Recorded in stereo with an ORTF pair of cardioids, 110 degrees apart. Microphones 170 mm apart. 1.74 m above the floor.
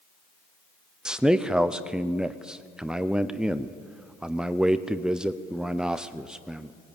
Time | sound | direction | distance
1.1 | a man speaking | 5° right | 0.7 m